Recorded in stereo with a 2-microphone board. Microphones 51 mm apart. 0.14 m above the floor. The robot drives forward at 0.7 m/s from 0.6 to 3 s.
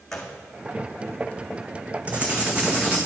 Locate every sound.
0.1 s a gunshot: 5° left (ahead or behind), 1.5 m
2.1 s writing: 25° right (ahead or behind), 1.4 m; by 3.0 s 15° right (ahead or behind), 2.0 m